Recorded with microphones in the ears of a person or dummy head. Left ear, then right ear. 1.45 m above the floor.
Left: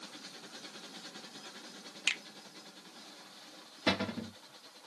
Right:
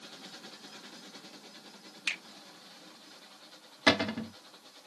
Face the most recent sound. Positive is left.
turn(degrees=-30)  # may be behind; listen again after turning